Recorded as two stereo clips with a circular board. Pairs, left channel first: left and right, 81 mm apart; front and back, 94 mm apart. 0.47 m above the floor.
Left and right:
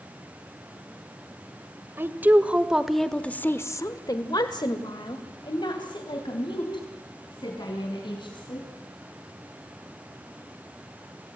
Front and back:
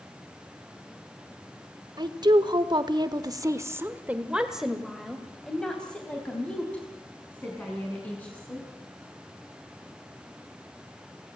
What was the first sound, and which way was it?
A woman speaking, 150° right.